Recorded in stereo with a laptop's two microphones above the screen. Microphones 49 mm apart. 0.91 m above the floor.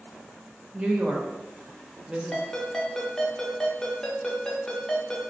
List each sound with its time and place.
0.7 s a woman speaking: 20° right (ahead or behind), 0.6 m
2.3 s a ringtone: 10° left (ahead or behind), 0.7 m